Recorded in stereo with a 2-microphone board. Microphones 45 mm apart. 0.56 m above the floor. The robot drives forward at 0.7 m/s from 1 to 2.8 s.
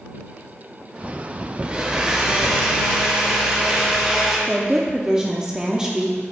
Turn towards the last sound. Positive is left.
turn(degrees=-15)  # may be behind; listen again after turning